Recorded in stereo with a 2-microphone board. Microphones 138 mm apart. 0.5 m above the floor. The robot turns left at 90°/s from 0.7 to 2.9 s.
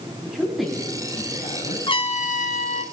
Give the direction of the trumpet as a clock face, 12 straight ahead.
7 o'clock.